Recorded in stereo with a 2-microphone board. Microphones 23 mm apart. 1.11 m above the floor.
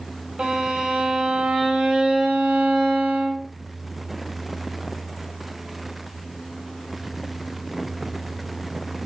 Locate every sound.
0.4 s a violin: 40° right (ahead or behind), 1.1 m